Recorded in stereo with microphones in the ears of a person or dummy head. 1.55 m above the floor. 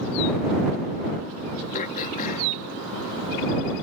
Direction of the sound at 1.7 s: 45° left (ahead or behind).